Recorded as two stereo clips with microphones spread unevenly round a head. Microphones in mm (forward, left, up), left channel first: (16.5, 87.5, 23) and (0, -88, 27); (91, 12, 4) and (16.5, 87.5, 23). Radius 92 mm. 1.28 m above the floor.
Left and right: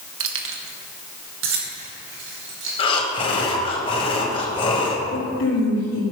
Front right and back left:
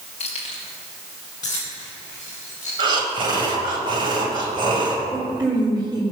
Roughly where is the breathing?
Behind left.